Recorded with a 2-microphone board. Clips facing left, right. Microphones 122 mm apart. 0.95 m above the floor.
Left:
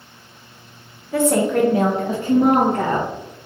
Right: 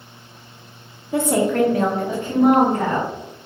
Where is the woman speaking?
20° right (ahead or behind), 0.6 m; by 3.1 s 60° left (ahead or behind), 1.4 m.